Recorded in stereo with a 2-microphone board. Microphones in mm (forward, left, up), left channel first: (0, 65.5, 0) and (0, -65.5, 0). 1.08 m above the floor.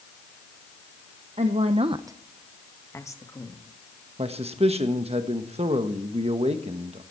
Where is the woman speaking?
50° right (ahead or behind), 0.9 m; by 3.6 s 30° left (ahead or behind), 2.0 m.